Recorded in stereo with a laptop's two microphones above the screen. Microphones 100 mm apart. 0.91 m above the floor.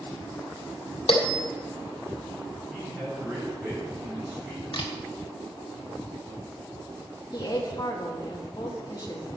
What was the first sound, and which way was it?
A bell, 80° left.